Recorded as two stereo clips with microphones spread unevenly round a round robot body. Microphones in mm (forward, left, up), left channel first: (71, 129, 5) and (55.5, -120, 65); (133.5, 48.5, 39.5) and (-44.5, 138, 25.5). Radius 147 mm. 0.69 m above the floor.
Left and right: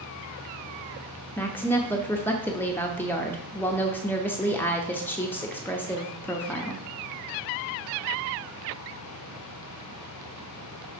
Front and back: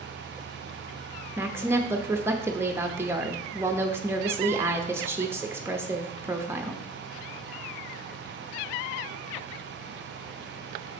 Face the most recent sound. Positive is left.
turn(degrees=105)